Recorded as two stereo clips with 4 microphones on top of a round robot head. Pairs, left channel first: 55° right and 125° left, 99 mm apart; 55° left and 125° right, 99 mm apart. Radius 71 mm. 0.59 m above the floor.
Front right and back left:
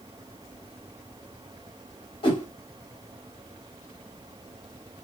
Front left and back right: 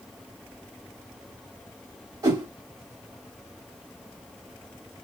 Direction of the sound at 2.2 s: 75° right.